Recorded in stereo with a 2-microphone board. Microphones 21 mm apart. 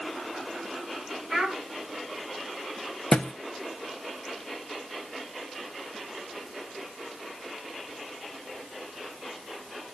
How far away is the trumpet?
I don't hear a trumpet.